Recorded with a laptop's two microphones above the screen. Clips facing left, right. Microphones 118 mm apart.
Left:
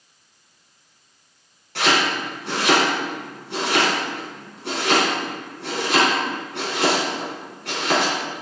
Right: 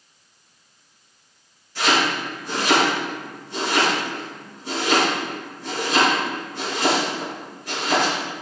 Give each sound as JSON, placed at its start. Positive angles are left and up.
{"t": 1.8, "sound": "chopping", "side_deg": 75, "distance_m": 4.0}